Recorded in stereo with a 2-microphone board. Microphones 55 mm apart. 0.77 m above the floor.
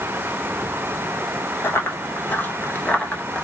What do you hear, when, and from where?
1.6 s running footsteps: 45° left (ahead or behind), 1.0 m; by 3.4 s 10° left (ahead or behind), 0.9 m